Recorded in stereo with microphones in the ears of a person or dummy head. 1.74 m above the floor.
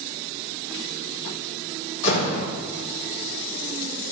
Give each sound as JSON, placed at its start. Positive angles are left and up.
{"t": 2.0, "sound": "a door slam", "side_deg": 75, "distance_m": 3.0}